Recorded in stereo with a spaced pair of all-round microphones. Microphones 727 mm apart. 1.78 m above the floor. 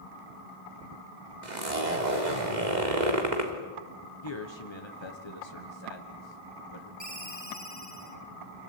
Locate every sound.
1.4 s a zipper: 75° right (ahead or behind), 3.5 m
4.2 s a man speaking: 35° left (ahead or behind), 1.7 m
7.0 s a ringtone: 25° left (ahead or behind), 3 m